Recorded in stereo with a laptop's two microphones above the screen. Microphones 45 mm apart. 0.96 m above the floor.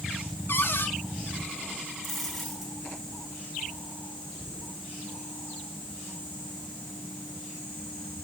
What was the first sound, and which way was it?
A cupboard door, 60° left (ahead or behind).